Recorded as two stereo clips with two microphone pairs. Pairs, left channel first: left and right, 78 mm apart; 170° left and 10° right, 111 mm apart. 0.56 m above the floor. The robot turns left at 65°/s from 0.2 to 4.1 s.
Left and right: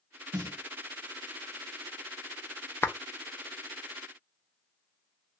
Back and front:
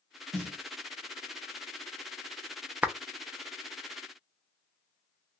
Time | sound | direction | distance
0.3 | a snare drum | 70° right | 1.6 m
2.8 | a clap | 50° left | 0.5 m